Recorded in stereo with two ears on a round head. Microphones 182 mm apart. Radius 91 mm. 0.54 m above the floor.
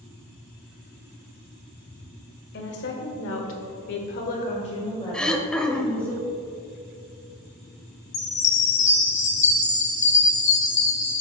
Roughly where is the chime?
Left.